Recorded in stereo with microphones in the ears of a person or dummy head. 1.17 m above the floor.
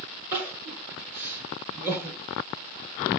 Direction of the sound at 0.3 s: 10° right (ahead or behind).